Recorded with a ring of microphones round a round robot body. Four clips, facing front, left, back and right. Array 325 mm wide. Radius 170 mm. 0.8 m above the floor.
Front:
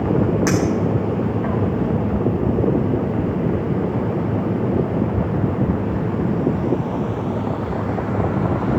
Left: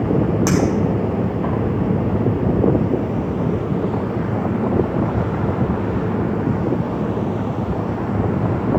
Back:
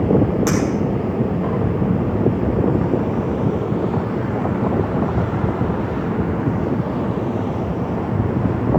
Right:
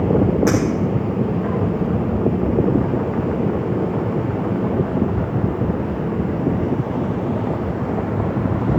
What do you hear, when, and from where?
0.5 s a clink: 80° left, 4.5 m